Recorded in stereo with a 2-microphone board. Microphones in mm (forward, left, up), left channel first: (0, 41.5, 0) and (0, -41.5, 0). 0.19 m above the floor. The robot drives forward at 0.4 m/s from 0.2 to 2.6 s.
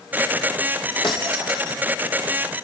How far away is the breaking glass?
About 4.5 m.